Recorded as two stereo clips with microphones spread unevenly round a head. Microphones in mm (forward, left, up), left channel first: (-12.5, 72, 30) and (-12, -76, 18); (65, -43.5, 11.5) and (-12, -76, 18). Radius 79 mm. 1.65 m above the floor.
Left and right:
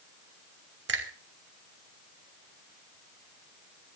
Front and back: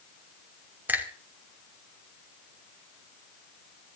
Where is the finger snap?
90° right, 3 m.